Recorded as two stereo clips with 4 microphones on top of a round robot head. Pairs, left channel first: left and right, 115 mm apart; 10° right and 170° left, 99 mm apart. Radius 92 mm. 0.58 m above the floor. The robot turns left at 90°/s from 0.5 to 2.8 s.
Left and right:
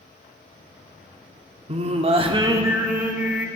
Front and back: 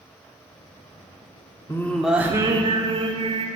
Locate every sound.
1.7 s singing: 70° right, 1.6 m; by 3.5 s 170° right, 1.6 m